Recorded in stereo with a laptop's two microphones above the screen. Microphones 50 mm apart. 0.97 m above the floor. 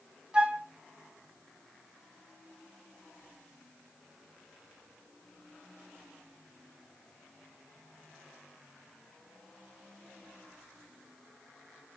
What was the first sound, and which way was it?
A flute, 25° right (ahead or behind).